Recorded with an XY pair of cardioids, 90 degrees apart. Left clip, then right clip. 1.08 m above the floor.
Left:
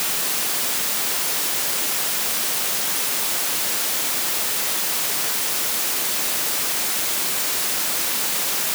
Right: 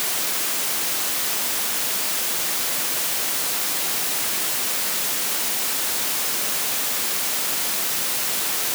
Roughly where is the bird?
No bird in this recording.